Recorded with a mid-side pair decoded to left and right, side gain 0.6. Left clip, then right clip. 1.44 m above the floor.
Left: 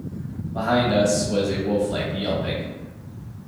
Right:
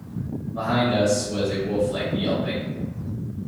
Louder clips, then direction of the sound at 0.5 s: Left 2 dB; 60° left.